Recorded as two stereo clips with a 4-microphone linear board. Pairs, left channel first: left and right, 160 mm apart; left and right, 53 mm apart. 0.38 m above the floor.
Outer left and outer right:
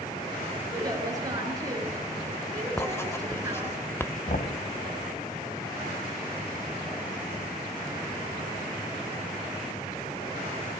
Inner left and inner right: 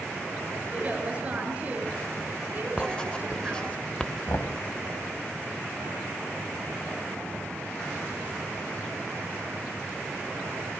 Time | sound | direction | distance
0.7 | a woman speaking | 20° right (ahead or behind) | 5.5 m
2.8 | writing | 15° left (ahead or behind) | 0.6 m
4.3 | knocking | 65° left (ahead or behind) | 1.8 m